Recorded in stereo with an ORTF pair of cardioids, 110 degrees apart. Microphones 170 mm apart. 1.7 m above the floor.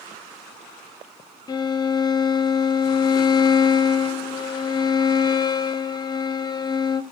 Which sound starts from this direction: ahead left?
A violin, at 1.5 s.